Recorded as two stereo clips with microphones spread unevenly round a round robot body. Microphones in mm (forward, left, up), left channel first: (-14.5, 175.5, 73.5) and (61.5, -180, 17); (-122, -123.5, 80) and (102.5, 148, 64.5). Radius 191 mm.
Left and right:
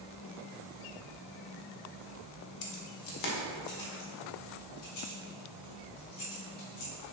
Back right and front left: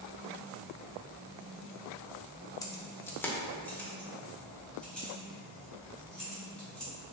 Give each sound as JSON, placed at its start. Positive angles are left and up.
{"t": 2.6, "sound": "keys jangling", "azimuth_deg": 150, "distance_m": 1.2}